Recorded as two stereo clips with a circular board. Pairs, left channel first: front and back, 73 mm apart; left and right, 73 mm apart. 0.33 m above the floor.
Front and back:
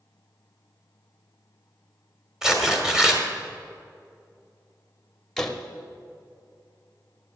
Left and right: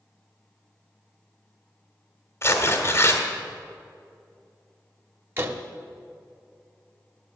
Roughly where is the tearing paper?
Left.